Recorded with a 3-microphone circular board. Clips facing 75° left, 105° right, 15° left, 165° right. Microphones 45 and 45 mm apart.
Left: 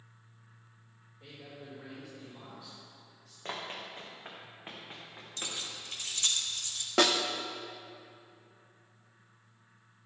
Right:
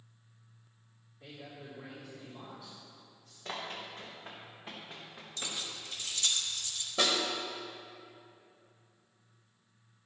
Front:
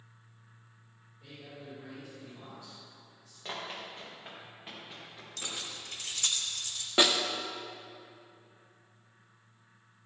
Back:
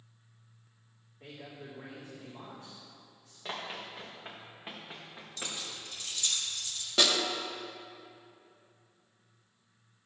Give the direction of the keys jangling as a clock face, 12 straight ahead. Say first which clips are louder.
Even, even; 11 o'clock.